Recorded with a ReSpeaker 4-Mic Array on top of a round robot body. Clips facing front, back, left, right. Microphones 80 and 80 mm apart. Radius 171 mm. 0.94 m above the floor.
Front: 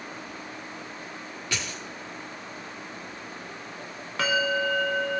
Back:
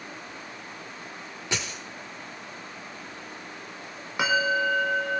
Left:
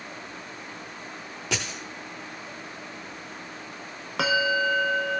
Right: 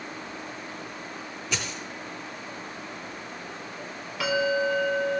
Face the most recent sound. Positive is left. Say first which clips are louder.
# back 1 dB, left 1 dB
turn(degrees=105)